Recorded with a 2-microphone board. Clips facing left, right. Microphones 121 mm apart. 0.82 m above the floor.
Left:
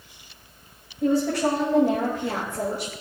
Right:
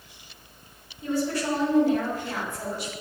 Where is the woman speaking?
80° left, 5 m; by 2.9 s 75° left (ahead or behind), 3.5 m.